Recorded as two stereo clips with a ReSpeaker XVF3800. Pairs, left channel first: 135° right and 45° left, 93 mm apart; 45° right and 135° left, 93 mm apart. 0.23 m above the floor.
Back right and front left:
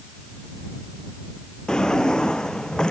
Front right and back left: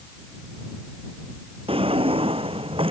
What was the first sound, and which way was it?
A drawer, 140° left.